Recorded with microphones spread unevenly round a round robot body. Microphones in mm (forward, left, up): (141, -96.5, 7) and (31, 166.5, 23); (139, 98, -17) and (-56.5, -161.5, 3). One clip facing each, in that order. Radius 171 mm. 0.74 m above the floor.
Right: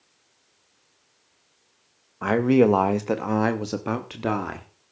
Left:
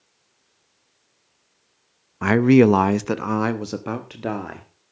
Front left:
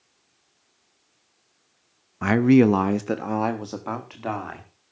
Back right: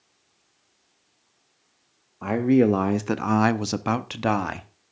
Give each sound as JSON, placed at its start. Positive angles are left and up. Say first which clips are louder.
{"t": 2.2, "sound": "a man speaking", "louder": "left 4 dB, front left 3 dB", "azimuth_deg": 70, "distance_m": 0.7}